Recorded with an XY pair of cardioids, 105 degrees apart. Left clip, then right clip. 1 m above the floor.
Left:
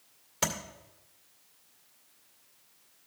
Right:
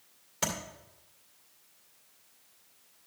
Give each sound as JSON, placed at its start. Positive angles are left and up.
{"t": 0.4, "sound": "tapping", "azimuth_deg": 20, "distance_m": 2.0}